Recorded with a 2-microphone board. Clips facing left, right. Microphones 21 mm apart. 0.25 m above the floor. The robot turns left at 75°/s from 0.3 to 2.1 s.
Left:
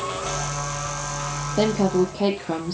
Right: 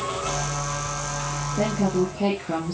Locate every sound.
1.6 s a woman speaking: 70° left, 6.5 m; by 2.7 s 30° left, 6.5 m